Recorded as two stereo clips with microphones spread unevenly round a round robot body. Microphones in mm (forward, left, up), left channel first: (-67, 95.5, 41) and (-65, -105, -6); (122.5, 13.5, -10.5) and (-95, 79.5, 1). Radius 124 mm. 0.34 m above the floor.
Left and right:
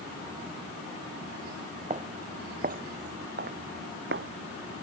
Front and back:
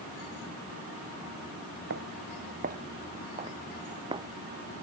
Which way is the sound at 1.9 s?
150° right.